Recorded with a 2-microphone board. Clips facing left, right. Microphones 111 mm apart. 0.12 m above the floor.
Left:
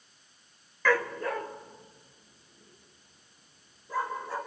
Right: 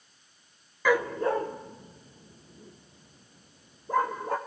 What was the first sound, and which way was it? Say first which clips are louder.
A dog barking: right 3 dB; 10° right (ahead or behind).